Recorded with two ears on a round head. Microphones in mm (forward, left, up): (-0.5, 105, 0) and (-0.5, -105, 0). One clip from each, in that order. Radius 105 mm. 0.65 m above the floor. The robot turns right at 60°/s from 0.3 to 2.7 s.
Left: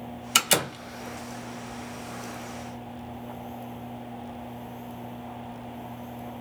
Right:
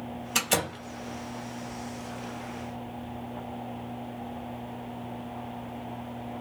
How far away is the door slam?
About 1.7 m.